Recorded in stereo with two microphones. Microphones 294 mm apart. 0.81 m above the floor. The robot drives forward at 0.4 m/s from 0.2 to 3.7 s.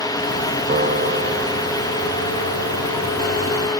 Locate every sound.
0.7 s a piano: 35° right (ahead or behind); by 3.7 s 80° right